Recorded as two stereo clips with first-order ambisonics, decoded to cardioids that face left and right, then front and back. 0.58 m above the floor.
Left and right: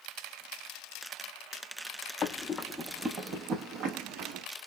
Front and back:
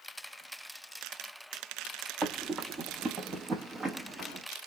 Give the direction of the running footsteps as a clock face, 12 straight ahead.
8 o'clock.